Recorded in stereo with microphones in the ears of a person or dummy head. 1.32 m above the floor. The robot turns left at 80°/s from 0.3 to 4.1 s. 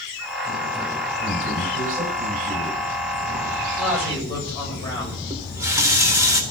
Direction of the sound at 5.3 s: 15° right (ahead or behind).